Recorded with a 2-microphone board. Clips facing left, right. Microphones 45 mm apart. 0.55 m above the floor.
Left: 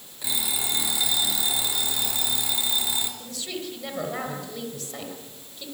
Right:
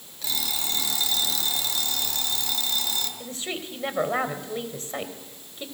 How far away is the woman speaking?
About 3 m.